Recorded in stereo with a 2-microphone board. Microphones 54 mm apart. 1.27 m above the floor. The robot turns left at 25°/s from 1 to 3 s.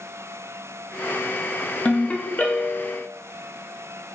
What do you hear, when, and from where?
1.9 s a ringtone: 25° left (ahead or behind), 0.7 m; by 3.1 s 45° left (ahead or behind), 0.7 m